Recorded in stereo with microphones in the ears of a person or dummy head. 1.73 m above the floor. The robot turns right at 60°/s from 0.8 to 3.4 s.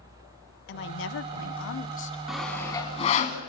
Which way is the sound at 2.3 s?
5° right (ahead or behind).